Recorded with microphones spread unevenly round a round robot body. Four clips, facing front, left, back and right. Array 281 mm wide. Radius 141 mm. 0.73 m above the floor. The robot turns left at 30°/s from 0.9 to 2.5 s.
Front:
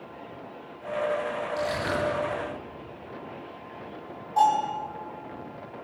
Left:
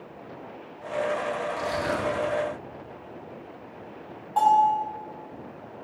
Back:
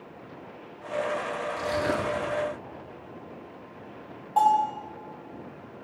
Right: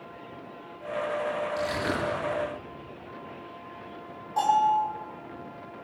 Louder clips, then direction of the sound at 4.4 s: Left 3 dB, back 1 dB; 165° right.